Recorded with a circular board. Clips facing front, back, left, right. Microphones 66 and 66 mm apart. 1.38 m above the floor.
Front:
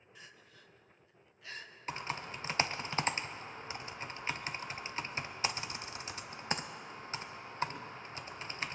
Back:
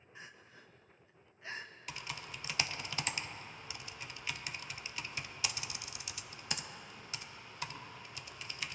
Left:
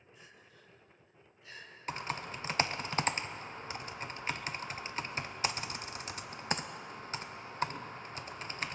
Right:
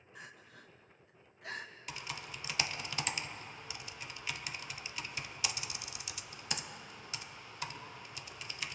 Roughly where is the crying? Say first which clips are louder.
Back 3 dB, right 7 dB; behind right.